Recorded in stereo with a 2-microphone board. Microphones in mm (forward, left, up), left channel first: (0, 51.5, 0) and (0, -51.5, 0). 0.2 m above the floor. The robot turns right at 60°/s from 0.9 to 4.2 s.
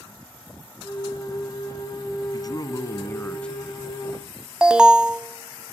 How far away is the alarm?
About 0.7 m.